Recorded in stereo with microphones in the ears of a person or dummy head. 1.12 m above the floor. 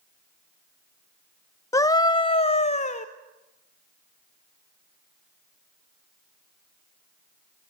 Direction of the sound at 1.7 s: 20° left (ahead or behind).